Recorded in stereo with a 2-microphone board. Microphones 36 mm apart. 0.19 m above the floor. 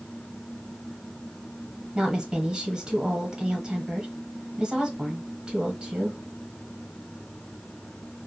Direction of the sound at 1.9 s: 25° right (ahead or behind).